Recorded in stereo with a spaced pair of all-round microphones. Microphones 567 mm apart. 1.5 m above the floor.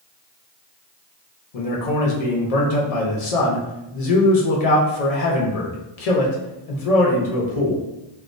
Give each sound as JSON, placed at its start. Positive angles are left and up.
{"t": 1.5, "sound": "a man speaking", "side_deg": 80, "distance_m": 0.8}